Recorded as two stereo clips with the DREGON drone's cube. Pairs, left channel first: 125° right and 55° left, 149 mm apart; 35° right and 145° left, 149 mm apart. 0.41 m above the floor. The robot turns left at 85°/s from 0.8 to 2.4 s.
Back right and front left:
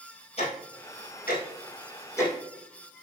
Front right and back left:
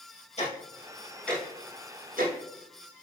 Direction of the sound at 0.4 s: 75° right.